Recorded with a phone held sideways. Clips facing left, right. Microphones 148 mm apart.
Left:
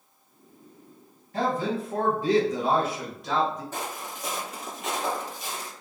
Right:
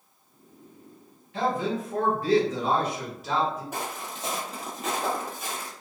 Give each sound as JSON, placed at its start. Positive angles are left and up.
{"t": 1.3, "sound": "a man speaking", "side_deg": 40, "distance_m": 1.0}
{"t": 3.7, "sound": "footsteps", "side_deg": -15, "distance_m": 1.3}